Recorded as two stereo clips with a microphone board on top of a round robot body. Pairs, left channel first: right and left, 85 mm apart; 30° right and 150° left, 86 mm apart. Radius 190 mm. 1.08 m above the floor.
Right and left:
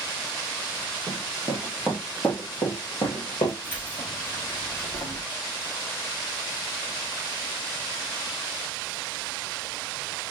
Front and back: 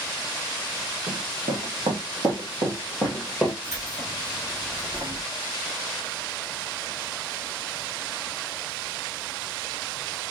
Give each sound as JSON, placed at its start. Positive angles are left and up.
{"t": 1.1, "sound": "running footsteps", "azimuth_deg": 165, "distance_m": 2.5}
{"t": 3.6, "sound": "keys jangling", "azimuth_deg": -155, "distance_m": 2.5}